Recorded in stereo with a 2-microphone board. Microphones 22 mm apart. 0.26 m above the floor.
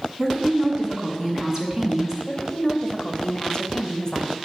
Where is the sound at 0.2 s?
30° right (ahead or behind), 2.5 m.